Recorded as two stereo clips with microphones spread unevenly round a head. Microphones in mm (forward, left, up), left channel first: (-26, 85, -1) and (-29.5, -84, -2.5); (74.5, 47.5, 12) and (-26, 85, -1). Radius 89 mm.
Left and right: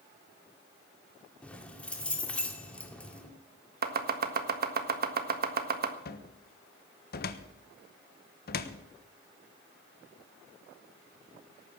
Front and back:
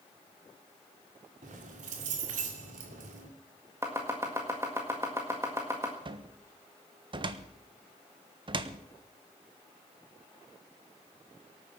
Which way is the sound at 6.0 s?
120° left.